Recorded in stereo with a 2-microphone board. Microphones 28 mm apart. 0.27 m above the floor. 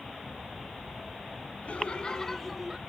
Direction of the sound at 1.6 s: 45° left (ahead or behind).